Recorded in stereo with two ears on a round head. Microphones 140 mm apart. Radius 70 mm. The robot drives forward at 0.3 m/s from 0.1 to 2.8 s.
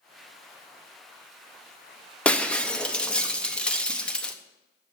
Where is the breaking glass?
10° left (ahead or behind), 0.6 m; by 4.3 s 5° left (ahead or behind), 0.7 m.